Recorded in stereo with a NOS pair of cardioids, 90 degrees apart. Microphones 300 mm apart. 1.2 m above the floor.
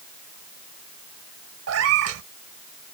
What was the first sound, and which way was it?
A cat meowing, 55° right.